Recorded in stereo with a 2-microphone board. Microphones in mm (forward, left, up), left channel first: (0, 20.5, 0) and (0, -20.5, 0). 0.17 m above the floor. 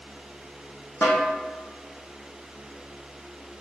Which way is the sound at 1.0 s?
50° left (ahead or behind).